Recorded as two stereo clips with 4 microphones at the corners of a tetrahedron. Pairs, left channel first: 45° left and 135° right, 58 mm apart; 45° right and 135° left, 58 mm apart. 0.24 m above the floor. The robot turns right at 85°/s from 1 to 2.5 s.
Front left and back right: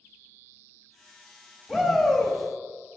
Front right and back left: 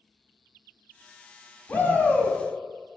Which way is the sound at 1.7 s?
65° right.